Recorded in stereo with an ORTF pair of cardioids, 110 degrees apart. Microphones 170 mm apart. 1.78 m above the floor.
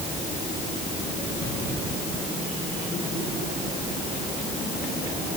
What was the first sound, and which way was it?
Only background noise.